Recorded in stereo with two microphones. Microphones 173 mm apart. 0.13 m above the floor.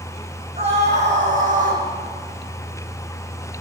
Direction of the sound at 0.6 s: 35° right (ahead or behind).